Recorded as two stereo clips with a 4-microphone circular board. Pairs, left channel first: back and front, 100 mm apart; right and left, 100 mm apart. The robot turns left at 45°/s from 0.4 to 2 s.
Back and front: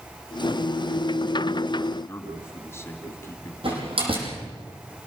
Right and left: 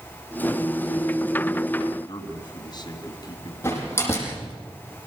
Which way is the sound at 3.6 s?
20° right.